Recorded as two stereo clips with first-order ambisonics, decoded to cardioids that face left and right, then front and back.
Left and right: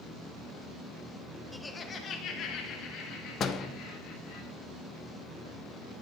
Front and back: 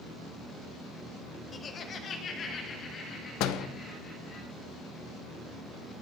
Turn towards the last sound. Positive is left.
turn(degrees=30)